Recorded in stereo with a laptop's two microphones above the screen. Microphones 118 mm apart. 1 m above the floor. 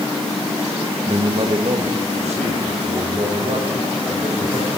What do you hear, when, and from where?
1.1 s a man speaking: 50° right (ahead or behind), 0.9 m; by 4.7 s 80° right, 4.5 m